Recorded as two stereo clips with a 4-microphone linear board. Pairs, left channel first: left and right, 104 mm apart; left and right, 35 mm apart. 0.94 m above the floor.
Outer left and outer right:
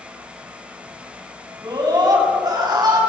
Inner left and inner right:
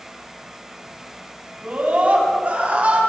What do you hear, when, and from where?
1.6 s a scream: 40° right (ahead or behind), 7.5 m